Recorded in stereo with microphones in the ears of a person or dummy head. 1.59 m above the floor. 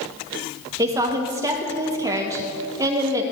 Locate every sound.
0.8 s a woman speaking: 15° right (ahead or behind), 1.2 m